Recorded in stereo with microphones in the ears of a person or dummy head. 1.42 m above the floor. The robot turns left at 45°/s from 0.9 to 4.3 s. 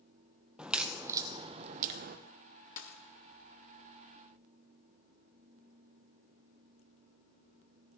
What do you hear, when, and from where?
0.6 s a crack: 5° right (ahead or behind), 0.6 m; by 2.2 s 50° right (ahead or behind), 0.6 m
2.8 s a dropped coin: 45° left (ahead or behind), 1.7 m; by 3.0 s 40° left (ahead or behind), 1.7 m